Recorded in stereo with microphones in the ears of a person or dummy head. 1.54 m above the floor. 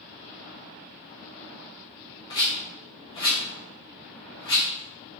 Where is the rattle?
20° left (ahead or behind), 0.8 m.